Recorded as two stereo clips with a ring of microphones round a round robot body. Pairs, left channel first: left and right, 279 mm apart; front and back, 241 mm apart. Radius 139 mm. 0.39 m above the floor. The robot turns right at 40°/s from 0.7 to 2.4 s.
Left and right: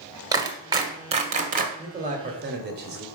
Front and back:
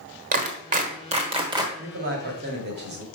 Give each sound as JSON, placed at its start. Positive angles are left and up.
{"t": 0.3, "sound": "a clap", "azimuth_deg": -155, "distance_m": 1.2}
{"t": 1.8, "sound": "a man speaking", "azimuth_deg": -160, "distance_m": 1.5}